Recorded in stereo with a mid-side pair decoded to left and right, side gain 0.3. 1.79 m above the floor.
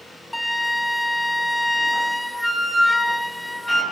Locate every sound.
0.3 s a flute: straight ahead, 2.5 m